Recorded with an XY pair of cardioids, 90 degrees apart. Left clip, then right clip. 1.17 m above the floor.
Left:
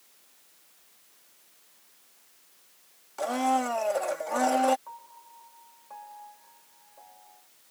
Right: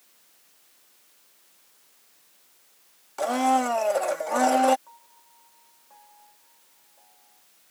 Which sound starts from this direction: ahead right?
A blender, at 3.2 s.